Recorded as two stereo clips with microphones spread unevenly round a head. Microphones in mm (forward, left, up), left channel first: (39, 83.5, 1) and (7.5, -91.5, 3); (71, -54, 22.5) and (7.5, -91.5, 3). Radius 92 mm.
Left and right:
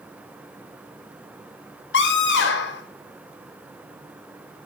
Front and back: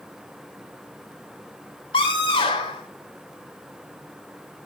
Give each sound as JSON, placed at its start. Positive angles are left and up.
{"t": 1.9, "sound": "a scream", "azimuth_deg": 60, "distance_m": 4.0}